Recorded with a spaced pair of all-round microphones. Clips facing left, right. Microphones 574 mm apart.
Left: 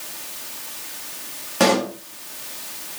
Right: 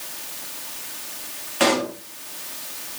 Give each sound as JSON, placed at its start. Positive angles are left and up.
{"t": 1.6, "sound": "a pop", "side_deg": 65, "distance_m": 2.0}